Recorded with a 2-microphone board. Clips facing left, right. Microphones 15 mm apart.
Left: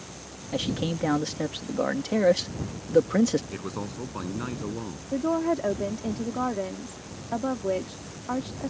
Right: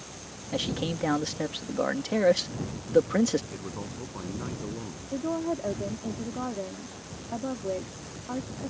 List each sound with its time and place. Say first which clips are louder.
0.5 s a man speaking: left 2 dB; centre (ahead or behind)
3.5 s a man speaking: left 3 dB; 45° left (ahead or behind)
5.1 s a woman speaking: left 5 dB; 65° left (ahead or behind)